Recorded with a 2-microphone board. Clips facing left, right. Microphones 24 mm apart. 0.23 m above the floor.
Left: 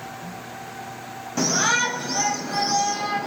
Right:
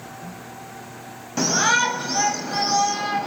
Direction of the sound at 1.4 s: 20° right (ahead or behind).